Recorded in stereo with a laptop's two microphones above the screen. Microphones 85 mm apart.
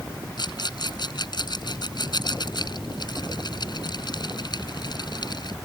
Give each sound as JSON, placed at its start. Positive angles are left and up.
{"t": 0.4, "sound": "a rattle", "side_deg": 55}